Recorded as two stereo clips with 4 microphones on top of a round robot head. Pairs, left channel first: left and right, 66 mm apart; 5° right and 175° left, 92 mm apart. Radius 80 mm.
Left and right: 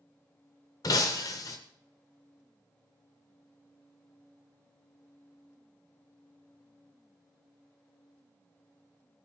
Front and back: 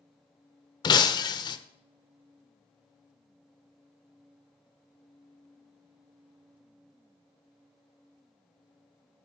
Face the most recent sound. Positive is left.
turn(degrees=40)